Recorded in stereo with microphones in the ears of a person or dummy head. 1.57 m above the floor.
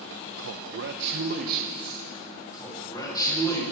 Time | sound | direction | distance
0.4 | a man speaking | 70° right (ahead or behind) | 0.8 m
2.5 | a man speaking | 20° left (ahead or behind) | 7.5 m